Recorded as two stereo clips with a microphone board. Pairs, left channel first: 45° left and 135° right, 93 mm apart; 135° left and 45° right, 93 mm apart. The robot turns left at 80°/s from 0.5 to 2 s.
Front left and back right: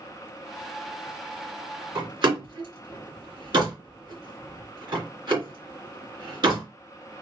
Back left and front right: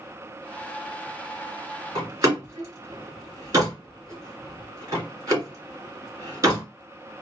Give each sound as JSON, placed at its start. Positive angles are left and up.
{"t": 1.9, "sound": "a door slam", "azimuth_deg": -95, "distance_m": 2.5}